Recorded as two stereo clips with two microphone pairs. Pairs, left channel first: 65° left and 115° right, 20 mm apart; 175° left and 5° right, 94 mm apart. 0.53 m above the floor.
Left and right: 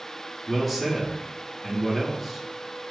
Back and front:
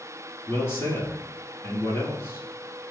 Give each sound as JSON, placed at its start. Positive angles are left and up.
{"t": 0.5, "sound": "a man speaking", "azimuth_deg": 155, "distance_m": 1.2}